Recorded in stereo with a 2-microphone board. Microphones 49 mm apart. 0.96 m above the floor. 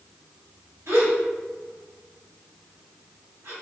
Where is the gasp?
75° right (ahead or behind), 1.9 m.